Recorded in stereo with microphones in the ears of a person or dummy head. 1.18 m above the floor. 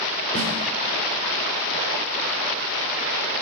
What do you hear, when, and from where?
0.3 s a snare drum: 35° left (ahead or behind), 5 m